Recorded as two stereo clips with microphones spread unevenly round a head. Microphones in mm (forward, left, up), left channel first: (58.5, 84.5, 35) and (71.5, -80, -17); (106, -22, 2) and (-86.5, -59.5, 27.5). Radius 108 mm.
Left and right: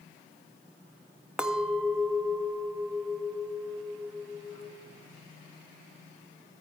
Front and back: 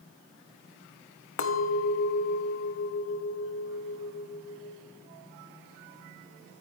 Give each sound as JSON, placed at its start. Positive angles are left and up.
{"t": 1.4, "sound": "a clink", "azimuth_deg": 0, "distance_m": 1.0}